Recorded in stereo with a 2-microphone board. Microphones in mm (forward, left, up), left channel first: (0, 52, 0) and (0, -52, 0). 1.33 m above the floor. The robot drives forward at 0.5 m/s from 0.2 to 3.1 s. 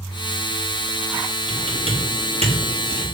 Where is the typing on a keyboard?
75° right (ahead or behind), 3.5 m; by 3.0 s 80° right, 3.5 m.